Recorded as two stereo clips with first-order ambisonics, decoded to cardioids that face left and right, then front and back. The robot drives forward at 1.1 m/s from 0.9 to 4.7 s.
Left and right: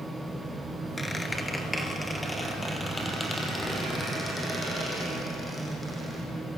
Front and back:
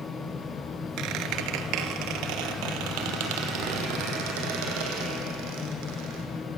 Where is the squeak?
175° left, 1.9 m; by 6.2 s straight behind, 5.5 m.